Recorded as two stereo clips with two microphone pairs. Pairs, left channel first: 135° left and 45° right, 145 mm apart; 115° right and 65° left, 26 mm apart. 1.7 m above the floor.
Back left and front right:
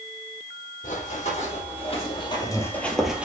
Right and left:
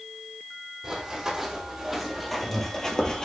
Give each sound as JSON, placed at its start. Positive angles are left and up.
{"t": 0.8, "sound": "running footsteps", "azimuth_deg": 130, "distance_m": 3.5}